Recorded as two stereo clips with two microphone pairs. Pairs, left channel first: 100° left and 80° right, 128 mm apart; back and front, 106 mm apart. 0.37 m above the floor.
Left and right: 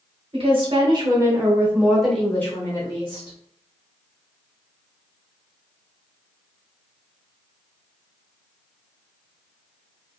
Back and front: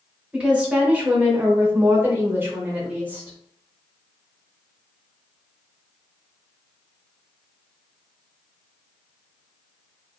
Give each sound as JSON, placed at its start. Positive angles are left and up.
{"t": 0.3, "sound": "a woman speaking", "azimuth_deg": -80, "distance_m": 1.1}